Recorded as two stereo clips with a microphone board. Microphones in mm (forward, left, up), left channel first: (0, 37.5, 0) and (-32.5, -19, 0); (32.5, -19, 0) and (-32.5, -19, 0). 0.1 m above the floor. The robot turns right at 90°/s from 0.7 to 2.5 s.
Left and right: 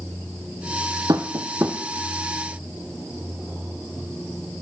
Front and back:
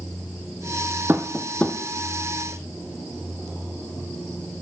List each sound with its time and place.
1.1 s tapping: 130° right, 1.0 m; by 1.8 s 70° right, 1.0 m